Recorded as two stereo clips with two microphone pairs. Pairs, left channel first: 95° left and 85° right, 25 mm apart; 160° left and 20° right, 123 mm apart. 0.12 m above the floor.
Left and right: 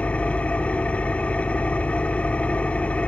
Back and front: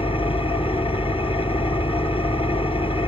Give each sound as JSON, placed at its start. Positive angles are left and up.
{"t": 0.0, "sound": "an engine running", "azimuth_deg": 125, "distance_m": 0.8}